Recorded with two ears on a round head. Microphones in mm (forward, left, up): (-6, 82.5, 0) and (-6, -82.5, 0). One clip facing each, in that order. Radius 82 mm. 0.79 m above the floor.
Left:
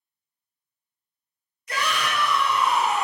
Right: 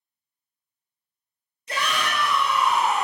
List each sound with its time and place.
1.7 s a shout: 25° right (ahead or behind), 0.7 m; by 3.0 s 5° left (ahead or behind), 1.1 m